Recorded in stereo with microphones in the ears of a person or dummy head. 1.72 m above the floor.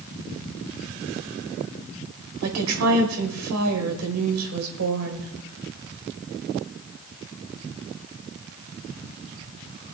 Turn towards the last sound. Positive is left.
turn(degrees=-85)